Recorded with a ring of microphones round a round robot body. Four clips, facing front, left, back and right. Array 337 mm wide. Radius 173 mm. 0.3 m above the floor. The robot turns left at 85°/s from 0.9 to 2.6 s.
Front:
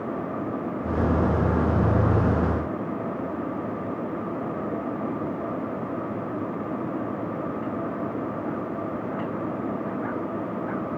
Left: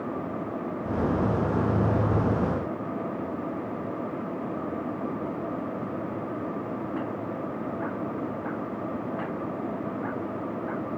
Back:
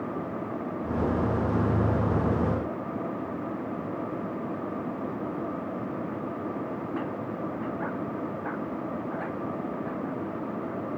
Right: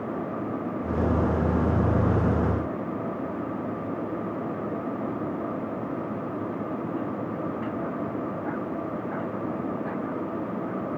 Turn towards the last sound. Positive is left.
No sound to turn to.